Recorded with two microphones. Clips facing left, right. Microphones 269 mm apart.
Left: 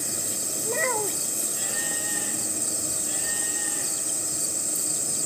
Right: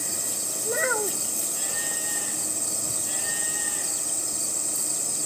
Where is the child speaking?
5° right (ahead or behind).